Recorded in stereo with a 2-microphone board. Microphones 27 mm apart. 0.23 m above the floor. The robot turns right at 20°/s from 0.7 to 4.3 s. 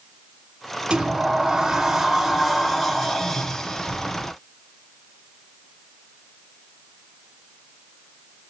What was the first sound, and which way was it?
A sliding door, 35° right.